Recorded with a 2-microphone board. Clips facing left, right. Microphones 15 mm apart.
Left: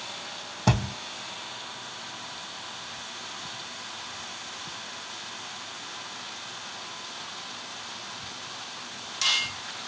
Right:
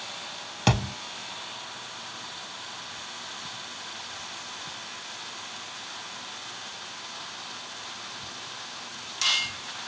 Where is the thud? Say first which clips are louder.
Right 1 dB; 55° right (ahead or behind), 2 m.